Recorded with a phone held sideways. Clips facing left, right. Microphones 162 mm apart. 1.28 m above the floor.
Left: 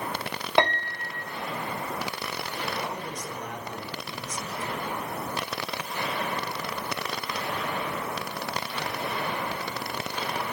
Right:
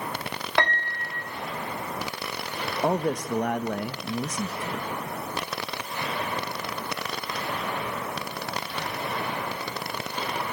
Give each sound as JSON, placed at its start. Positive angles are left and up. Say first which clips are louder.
{"t": 0.6, "sound": "a piano", "louder": "left 3 dB", "side_deg": 20, "distance_m": 2.5}
{"t": 2.8, "sound": "a man speaking", "louder": "right 10 dB", "side_deg": -70, "distance_m": 1.9}